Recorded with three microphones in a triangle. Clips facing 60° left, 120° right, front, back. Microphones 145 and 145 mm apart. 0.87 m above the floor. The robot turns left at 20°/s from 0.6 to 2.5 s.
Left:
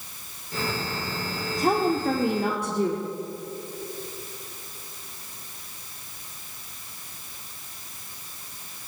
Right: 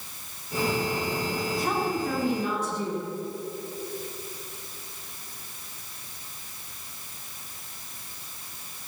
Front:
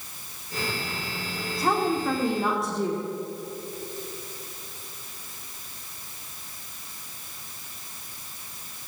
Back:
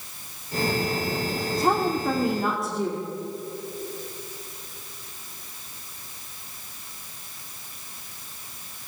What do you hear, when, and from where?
1.6 s a woman speaking: 110° left, 1.9 m; by 3.0 s 90° left, 1.9 m